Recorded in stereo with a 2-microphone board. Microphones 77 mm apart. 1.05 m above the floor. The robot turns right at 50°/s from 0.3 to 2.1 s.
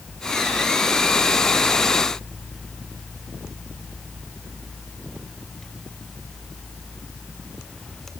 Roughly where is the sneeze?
No sneeze in this recording.